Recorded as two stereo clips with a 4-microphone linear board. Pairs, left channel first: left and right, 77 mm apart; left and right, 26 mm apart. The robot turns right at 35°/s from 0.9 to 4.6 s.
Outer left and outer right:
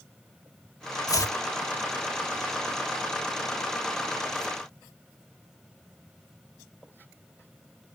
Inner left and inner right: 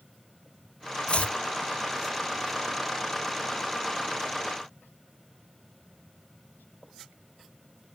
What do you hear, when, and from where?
1.1 s chopping: 50° left (ahead or behind); by 1.4 s 40° left (ahead or behind)